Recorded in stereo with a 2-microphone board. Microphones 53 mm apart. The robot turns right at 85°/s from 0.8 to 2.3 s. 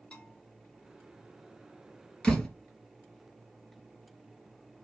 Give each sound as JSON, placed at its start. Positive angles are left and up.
{"t": 0.1, "sound": "a bell", "side_deg": 20, "distance_m": 1.4}
{"t": 2.2, "sound": "a door slam", "side_deg": 15, "distance_m": 2.0}